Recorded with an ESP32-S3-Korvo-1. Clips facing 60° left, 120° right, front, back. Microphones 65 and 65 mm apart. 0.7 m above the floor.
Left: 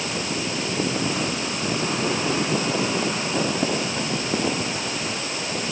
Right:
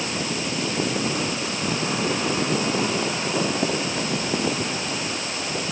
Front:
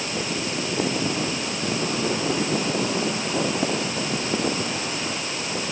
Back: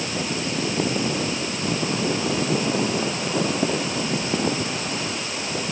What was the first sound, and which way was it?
Only background noise.